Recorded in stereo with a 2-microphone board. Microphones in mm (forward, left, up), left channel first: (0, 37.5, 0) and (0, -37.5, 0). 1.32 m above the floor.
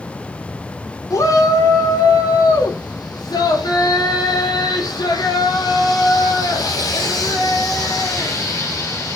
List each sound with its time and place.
1.1 s a shout: 60° left (ahead or behind), 4.5 m; by 9.2 s 55° left (ahead or behind), 6 m